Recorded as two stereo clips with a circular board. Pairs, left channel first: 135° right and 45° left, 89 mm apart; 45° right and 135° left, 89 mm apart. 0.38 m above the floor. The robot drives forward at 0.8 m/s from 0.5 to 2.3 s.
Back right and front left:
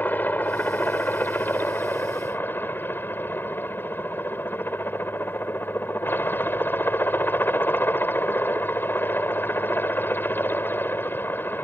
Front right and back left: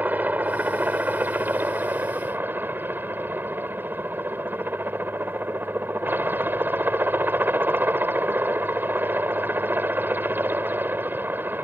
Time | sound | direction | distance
0.0 | a helicopter | straight behind | ?